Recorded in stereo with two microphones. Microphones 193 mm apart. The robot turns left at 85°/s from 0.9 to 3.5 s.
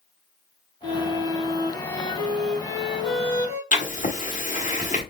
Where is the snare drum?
I don't hear a snare drum.